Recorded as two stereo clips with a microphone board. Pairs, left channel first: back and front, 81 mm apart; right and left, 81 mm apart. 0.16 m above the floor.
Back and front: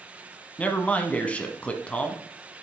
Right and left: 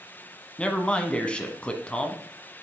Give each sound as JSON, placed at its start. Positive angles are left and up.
{"t": 0.6, "sound": "a man speaking", "azimuth_deg": -140, "distance_m": 1.1}